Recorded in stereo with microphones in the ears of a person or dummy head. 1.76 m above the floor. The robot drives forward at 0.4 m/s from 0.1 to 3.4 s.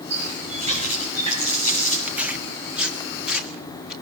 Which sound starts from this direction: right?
A running tap, at 0.1 s.